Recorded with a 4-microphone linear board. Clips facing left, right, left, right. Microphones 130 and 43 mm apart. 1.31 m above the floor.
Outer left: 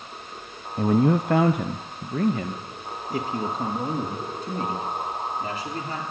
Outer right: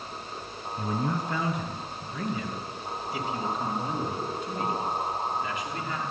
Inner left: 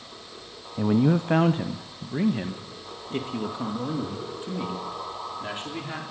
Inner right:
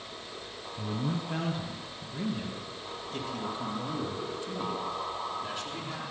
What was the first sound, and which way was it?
A man speaking, 60° left (ahead or behind).